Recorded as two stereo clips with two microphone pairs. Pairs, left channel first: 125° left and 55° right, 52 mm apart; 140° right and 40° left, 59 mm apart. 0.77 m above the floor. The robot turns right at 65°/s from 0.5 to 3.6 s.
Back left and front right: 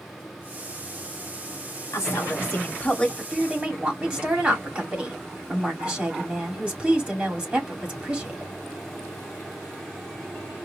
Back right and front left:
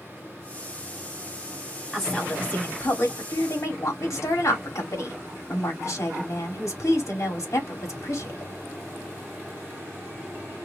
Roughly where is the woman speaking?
Behind left.